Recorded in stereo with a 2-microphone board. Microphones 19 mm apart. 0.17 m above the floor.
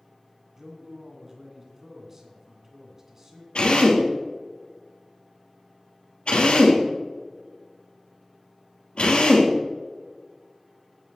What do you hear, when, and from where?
0.6 s a man speaking: 20° right (ahead or behind), 1.9 m
3.5 s a drill: 75° left (ahead or behind), 3 m